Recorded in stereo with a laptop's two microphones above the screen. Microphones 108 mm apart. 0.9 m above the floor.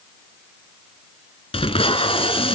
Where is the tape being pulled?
60° left (ahead or behind), 2.5 m.